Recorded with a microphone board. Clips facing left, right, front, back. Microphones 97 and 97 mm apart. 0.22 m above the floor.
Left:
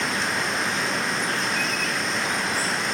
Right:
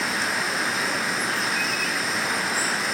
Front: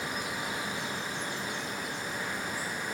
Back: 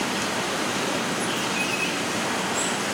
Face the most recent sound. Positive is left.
turn(degrees=180)